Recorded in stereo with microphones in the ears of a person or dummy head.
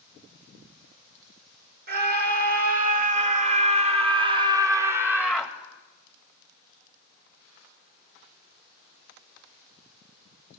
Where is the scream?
45° right (ahead or behind), 3.5 m; by 5.5 s centre (ahead or behind), 2.0 m.